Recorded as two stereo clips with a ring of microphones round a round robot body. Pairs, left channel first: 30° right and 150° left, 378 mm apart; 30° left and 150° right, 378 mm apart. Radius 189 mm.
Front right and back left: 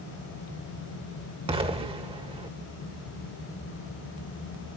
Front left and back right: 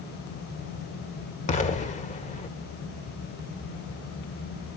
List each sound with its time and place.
1.5 s an explosion: 85° left, 1.5 m